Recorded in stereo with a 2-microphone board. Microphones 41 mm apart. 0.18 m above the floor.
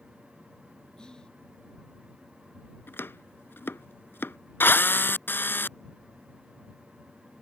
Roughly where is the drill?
Left.